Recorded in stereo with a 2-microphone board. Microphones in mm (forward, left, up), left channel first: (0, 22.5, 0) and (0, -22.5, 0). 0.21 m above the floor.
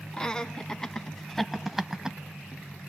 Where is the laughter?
20° left (ahead or behind), 2 m; by 2.2 s 15° right (ahead or behind), 1.2 m.